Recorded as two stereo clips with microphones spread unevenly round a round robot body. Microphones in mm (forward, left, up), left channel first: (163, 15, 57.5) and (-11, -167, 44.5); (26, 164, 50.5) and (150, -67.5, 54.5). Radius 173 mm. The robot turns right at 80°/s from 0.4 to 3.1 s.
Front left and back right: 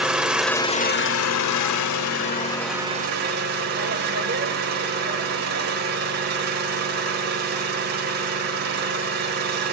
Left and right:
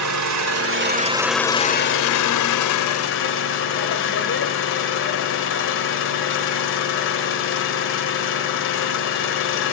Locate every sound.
0.0 s an engine running: 45° right, 1.3 m; by 9.7 s 170° left, 1.3 m